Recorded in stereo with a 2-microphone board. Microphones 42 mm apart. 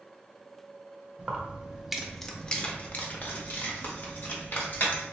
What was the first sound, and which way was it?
Keys jangling, 30° right (ahead or behind).